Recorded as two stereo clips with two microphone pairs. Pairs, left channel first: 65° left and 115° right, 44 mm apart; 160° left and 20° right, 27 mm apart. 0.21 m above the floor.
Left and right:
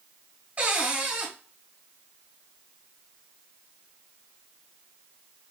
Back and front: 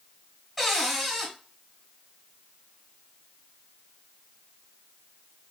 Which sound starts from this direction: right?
A cupboard door, at 0.6 s.